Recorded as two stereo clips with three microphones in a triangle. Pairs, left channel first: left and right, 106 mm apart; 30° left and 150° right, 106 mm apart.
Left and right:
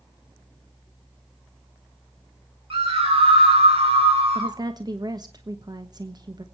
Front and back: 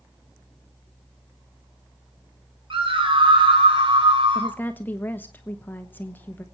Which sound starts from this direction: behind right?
A scream, at 2.7 s.